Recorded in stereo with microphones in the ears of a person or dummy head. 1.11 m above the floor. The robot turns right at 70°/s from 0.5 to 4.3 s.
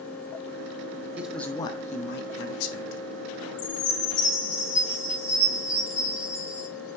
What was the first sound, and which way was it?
A man speaking, 10° right.